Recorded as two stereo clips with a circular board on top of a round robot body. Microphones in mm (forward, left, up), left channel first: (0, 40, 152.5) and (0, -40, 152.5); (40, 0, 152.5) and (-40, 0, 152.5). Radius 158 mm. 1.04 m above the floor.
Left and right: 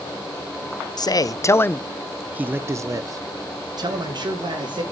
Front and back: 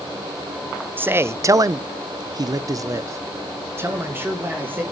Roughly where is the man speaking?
Behind left.